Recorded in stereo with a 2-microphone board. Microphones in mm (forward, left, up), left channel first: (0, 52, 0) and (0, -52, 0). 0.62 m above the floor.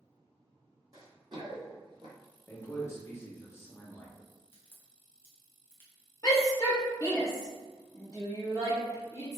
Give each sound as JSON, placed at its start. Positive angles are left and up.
{"t": 0.9, "sound": "running footsteps", "side_deg": -40, "distance_m": 1.1}
{"t": 2.5, "sound": "a man speaking", "side_deg": 25, "distance_m": 0.7}
{"t": 4.5, "sound": "a crack", "side_deg": 25, "distance_m": 0.8}
{"t": 6.2, "sound": "a shout", "side_deg": 35, "distance_m": 1.0}